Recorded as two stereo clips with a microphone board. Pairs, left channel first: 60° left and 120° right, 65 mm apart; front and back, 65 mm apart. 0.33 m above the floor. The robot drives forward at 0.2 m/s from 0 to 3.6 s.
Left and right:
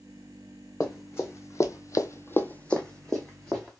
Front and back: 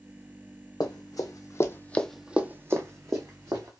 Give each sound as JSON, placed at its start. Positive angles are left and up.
{"t": 0.8, "sound": "running footsteps", "azimuth_deg": 10, "distance_m": 1.1}